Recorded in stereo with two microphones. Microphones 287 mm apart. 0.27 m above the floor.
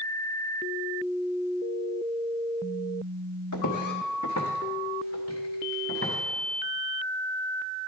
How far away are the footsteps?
About 1.0 m.